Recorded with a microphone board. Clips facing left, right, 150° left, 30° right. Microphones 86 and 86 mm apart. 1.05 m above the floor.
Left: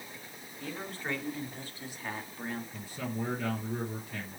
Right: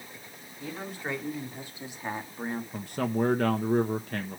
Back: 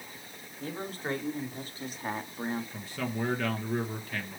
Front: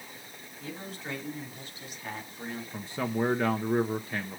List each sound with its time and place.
0.6 s a man speaking: 165° right, 2.5 m; by 2.6 s 150° right, 1.2 m
2.7 s a man speaking: 95° right, 1.1 m